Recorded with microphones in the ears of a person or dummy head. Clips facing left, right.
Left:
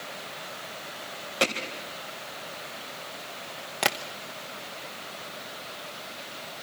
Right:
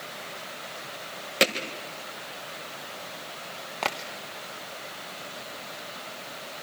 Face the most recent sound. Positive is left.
turn(degrees=15)  # may be behind; listen again after turning